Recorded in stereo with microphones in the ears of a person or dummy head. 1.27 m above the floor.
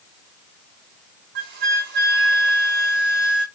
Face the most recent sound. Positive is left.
turn(degrees=-45)  # may be behind; listen again after turning